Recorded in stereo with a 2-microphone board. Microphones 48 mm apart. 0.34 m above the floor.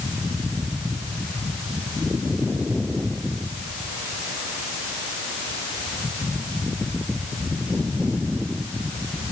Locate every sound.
Only background noise.